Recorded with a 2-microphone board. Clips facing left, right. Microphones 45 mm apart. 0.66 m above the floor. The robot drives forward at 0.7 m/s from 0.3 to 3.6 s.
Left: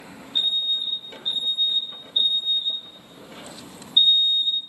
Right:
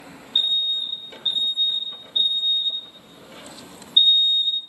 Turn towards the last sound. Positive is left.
turn(degrees=-65)  # may be behind; listen again after turning